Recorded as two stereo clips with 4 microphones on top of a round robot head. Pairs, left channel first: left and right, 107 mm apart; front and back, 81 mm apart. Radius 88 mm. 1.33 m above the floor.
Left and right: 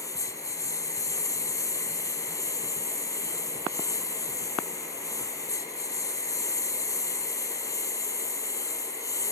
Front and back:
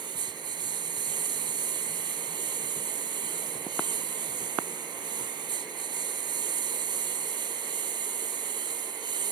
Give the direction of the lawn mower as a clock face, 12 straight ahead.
7 o'clock.